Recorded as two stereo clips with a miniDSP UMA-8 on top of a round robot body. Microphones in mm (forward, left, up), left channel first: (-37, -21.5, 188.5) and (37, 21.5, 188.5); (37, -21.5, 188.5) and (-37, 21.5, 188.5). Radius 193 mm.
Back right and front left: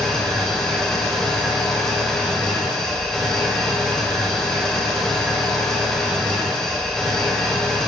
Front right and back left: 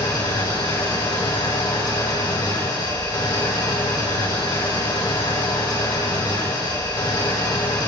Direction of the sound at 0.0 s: 70° right.